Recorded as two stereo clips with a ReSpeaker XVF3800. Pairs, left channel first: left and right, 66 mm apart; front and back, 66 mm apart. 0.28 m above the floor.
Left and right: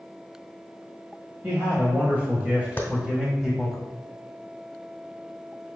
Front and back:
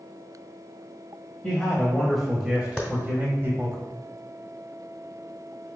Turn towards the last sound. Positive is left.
turn(degrees=90)